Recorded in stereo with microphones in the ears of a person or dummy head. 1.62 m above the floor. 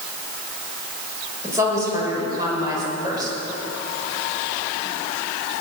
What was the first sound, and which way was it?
A woman speaking, 20° right (ahead or behind).